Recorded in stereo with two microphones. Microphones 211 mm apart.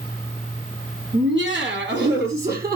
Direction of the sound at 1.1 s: 65° right (ahead or behind).